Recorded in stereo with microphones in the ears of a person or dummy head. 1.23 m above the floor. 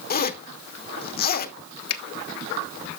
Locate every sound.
0.1 s a zipper: 45° left (ahead or behind), 0.8 m
1.9 s a finger snap: 75° left (ahead or behind), 1.1 m